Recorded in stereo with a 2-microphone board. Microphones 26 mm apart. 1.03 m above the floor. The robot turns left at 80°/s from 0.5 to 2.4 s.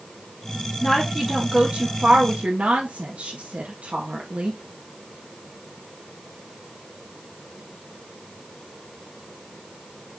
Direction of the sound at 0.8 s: 30° left.